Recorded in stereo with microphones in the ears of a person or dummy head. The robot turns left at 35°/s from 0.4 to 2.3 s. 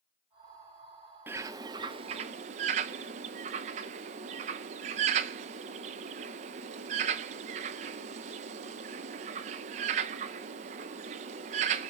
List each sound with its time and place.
1.3 s a bird: 15° right (ahead or behind), 0.6 m; by 11.9 s 35° right (ahead or behind), 0.6 m